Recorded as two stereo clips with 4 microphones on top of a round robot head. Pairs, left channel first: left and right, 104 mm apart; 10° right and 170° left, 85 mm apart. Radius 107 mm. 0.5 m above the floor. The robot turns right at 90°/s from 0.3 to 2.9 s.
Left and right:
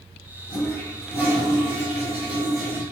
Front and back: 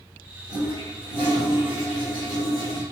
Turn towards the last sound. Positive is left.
turn(degrees=-15)